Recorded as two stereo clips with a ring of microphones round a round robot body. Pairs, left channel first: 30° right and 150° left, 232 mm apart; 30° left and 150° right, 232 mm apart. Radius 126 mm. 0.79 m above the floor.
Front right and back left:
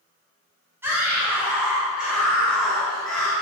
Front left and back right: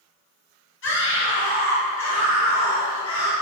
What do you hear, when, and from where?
0.8 s a scream: 70° left, 6 m; by 3.3 s 60° left, 6.5 m